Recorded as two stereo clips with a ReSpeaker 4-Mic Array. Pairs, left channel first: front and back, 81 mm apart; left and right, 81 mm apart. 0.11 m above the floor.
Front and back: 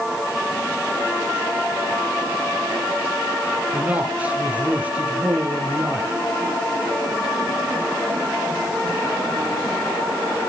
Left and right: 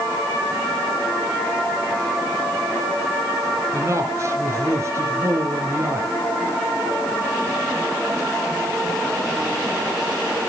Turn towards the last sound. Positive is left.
turn(degrees=-115)